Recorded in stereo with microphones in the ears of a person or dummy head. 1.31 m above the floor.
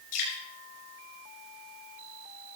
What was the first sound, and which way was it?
Dripping, 45° left (ahead or behind).